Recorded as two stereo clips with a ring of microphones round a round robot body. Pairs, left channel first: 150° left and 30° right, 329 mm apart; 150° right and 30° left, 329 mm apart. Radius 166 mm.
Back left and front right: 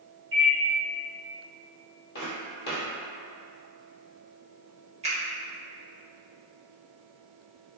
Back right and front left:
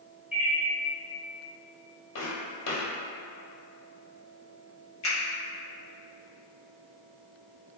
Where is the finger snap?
100° right, 1.3 m.